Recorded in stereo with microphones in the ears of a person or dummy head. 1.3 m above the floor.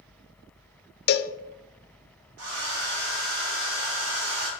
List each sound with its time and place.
1.1 s a cowbell: 50° left (ahead or behind), 0.7 m
2.4 s a hair dryer: 65° right (ahead or behind), 2.5 m